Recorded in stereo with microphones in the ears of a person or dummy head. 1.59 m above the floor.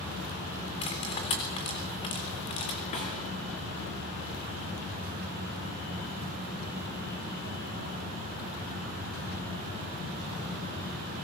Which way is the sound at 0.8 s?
25° left (ahead or behind).